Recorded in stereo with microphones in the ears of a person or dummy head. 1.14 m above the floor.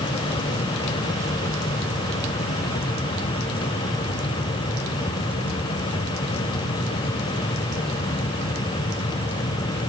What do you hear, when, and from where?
Only background noise.